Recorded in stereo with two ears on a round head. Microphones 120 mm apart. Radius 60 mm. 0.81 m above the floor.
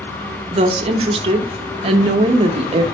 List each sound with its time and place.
0.5 s a woman speaking: 45° right (ahead or behind), 0.5 m